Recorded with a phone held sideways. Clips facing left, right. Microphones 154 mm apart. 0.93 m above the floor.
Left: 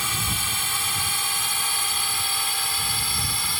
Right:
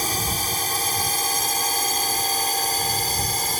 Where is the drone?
40° right (ahead or behind).